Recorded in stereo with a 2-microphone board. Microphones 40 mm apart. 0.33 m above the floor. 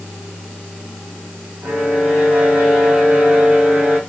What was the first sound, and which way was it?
A violin, 45° right (ahead or behind).